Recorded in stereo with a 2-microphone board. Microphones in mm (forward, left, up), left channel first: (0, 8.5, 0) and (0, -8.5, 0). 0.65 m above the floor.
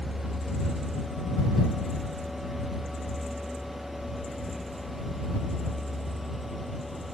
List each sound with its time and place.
0.0 s a vehicle: 60° right (ahead or behind); by 7.2 s centre (ahead or behind)